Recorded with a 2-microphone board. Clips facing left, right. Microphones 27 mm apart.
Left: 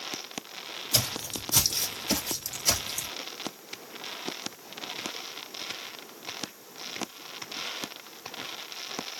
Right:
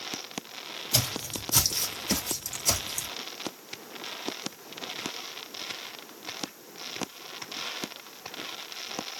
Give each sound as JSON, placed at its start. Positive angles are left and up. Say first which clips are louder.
{"t": 0.9, "sound": "footsteps", "louder": "even", "side_deg": -10, "distance_m": 1.8}